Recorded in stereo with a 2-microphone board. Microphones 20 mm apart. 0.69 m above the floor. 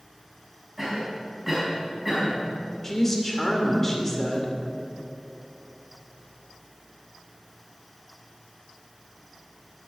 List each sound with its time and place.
0.8 s a cough: 15° right (ahead or behind), 5 m
2.8 s a woman speaking: 15° left (ahead or behind), 2.5 m